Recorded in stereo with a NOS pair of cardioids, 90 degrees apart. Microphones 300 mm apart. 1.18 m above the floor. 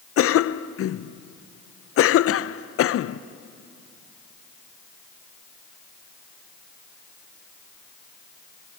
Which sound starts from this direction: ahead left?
A cough, at 0.2 s.